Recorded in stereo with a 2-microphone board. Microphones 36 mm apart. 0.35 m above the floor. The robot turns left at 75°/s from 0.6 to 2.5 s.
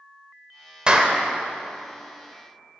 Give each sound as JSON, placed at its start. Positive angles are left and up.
{"t": 0.9, "sound": "a clap", "side_deg": -25, "distance_m": 1.3}